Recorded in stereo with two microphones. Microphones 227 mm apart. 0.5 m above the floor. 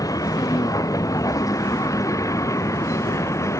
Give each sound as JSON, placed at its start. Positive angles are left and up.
{"t": 0.0, "sound": "a vehicle", "side_deg": 15}